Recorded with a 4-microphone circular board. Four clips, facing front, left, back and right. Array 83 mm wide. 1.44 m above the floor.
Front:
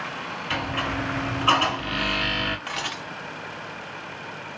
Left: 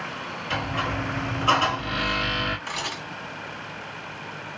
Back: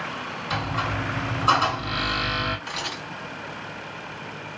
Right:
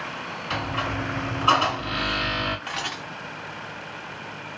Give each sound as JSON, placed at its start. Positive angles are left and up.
{"t": 0.5, "sound": "a squeak", "azimuth_deg": -5, "distance_m": 2.0}
{"t": 2.7, "sound": "a camera shutter", "azimuth_deg": -20, "distance_m": 1.4}